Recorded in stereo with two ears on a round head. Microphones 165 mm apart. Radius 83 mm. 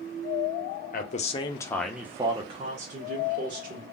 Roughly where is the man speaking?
Left.